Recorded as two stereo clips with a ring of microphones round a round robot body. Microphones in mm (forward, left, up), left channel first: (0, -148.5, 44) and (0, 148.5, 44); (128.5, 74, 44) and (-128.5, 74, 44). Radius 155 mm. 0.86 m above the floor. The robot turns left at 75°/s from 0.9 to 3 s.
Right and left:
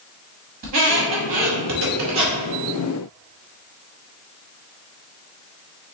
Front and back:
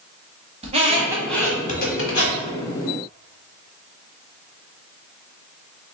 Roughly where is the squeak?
Behind left.